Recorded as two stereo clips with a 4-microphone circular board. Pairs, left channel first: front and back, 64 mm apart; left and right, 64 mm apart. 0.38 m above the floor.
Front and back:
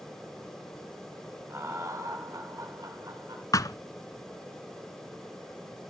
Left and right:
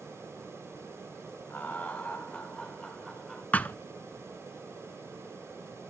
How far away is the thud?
About 0.7 m.